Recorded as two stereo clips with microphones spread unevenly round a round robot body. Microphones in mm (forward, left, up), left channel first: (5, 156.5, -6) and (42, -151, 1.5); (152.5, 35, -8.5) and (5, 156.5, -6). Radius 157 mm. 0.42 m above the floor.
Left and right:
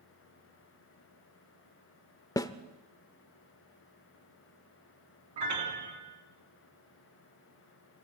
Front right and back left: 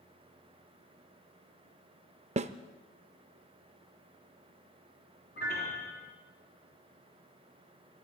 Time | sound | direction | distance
2.4 | a snare drum | 165° left | 0.5 m
5.4 | a piano | 105° right | 3 m